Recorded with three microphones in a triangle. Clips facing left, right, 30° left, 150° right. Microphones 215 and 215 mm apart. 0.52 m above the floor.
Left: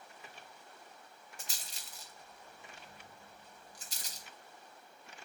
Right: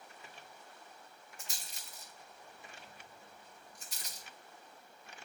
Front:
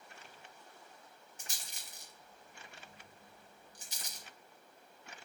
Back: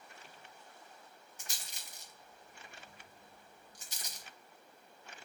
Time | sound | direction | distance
1.4 | a rattle | 105° left | 0.8 m